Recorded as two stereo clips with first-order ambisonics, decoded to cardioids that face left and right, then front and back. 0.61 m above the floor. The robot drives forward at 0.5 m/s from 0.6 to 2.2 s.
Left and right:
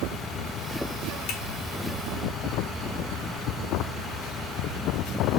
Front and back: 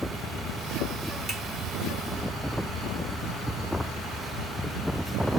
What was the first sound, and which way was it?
A finger snap, 115° left.